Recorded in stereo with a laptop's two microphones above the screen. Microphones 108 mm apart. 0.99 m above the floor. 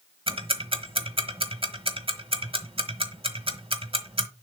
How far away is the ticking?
About 1.2 m.